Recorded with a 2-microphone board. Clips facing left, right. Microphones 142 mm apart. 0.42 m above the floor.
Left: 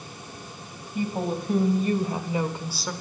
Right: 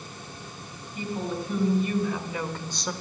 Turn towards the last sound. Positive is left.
turn(degrees=-5)  # may be behind; listen again after turning